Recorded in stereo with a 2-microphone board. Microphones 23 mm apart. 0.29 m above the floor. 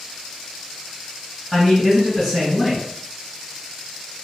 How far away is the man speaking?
About 1.8 m.